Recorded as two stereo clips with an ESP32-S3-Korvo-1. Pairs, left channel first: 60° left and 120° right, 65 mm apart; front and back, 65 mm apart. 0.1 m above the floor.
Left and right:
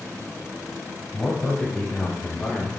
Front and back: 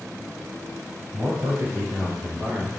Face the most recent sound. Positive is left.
turn(degrees=130)